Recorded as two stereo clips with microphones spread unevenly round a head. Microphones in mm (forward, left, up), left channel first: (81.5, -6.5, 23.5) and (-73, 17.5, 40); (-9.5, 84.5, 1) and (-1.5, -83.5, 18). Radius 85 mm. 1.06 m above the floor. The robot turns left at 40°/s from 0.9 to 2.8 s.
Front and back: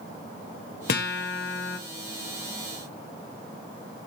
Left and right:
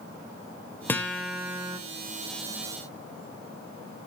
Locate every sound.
0.9 s a guitar: 10° left, 1.1 m; by 1.8 s 25° right, 1.1 m